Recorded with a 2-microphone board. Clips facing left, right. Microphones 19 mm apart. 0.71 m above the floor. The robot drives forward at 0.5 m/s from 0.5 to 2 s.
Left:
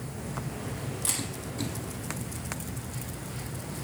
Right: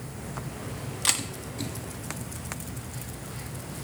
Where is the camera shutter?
50° right (ahead or behind), 1.4 m; by 1.2 s 45° right (ahead or behind), 1.4 m.